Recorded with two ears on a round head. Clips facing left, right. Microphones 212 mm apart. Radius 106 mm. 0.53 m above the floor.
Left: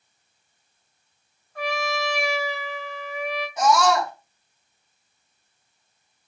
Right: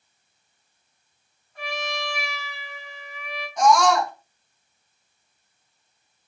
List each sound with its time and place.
1.6 s a trumpet: 40° left (ahead or behind), 5.5 m
3.6 s a scream: 5° left (ahead or behind), 4.5 m